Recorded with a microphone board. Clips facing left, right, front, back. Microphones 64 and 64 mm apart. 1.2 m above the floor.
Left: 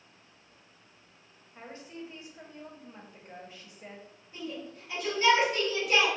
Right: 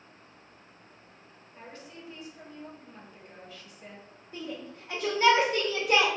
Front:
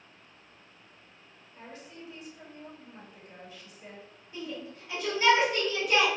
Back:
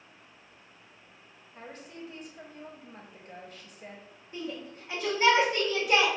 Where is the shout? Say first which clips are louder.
Right 1 dB, back 1 dB; 125° right, 2.0 m.